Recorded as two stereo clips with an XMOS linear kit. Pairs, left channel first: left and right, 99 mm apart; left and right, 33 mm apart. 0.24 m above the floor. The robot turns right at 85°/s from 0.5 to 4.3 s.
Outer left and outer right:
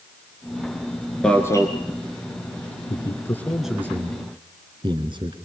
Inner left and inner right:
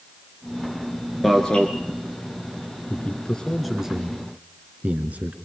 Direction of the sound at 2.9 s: 55° left (ahead or behind).